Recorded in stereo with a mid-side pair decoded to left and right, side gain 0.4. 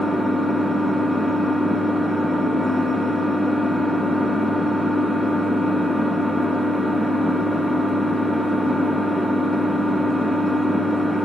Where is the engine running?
15° left, 2.5 m.